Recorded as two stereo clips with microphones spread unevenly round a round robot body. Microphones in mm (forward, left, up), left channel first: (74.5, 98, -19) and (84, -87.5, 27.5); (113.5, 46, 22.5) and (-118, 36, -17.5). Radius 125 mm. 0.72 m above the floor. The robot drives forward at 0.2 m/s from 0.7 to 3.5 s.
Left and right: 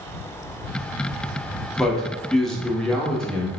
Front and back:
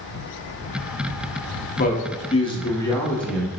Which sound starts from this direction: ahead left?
A man speaking, at 1.8 s.